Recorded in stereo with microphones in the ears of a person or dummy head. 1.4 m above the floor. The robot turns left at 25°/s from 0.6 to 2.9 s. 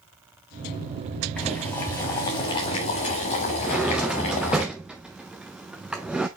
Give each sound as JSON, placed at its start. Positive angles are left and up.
{"t": 1.4, "sound": "boiling", "side_deg": 5, "distance_m": 1.3}
{"t": 3.6, "sound": "a drawer", "side_deg": 0, "distance_m": 0.6}